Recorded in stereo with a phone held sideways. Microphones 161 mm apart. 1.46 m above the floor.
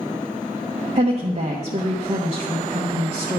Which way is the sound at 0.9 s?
50° right (ahead or behind).